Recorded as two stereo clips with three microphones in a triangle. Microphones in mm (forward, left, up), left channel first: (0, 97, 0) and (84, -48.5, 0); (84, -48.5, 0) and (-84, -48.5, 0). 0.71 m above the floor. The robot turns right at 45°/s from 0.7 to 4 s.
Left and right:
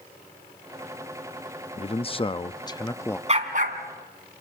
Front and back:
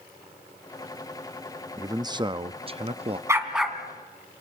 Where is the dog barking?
110° right, 2.5 m; by 4.4 s 75° right, 2.5 m.